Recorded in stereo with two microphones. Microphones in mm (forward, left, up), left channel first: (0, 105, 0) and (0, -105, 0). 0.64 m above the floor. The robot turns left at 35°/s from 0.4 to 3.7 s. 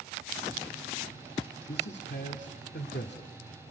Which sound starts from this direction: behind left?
A man speaking, at 1.7 s.